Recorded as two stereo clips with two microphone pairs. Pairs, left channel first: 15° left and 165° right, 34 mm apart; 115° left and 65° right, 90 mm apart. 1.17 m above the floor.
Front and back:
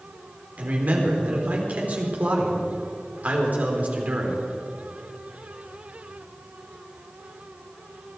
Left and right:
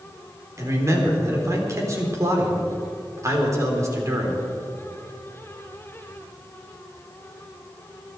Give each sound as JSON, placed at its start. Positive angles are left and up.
{"t": 0.6, "sound": "a man speaking", "azimuth_deg": -120, "distance_m": 3.5}